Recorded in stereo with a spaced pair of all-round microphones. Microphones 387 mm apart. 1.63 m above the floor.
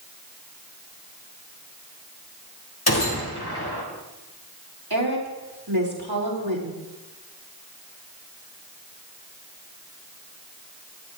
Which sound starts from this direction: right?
A woman speaking, at 4.9 s.